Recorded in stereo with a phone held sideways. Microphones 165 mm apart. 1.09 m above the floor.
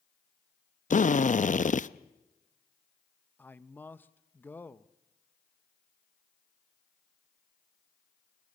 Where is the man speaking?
10° left (ahead or behind), 0.7 m.